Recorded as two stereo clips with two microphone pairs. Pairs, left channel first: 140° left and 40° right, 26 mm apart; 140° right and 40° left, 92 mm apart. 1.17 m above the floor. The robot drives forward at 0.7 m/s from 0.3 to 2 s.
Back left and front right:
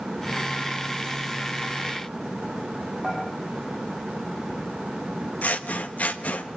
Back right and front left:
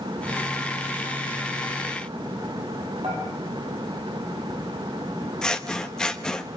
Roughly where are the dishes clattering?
Ahead left.